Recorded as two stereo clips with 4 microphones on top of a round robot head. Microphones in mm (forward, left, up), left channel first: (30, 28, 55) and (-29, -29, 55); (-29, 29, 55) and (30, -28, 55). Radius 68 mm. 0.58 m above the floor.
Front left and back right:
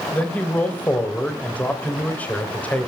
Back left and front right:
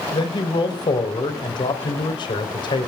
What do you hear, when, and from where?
0.1 s a man speaking: 115° left, 3 m